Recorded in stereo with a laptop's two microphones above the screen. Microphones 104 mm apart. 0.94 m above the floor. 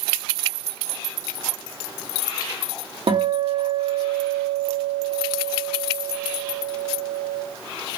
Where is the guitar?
55° right (ahead or behind), 0.9 m.